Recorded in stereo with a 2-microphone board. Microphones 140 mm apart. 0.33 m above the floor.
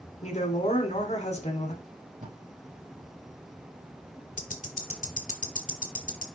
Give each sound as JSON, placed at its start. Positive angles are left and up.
{"t": 0.2, "sound": "a woman speaking", "side_deg": 50, "distance_m": 2.5}
{"t": 1.8, "sound": "tape being pulled", "side_deg": -60, "distance_m": 4.0}
{"t": 4.4, "sound": "ticking", "side_deg": 70, "distance_m": 1.2}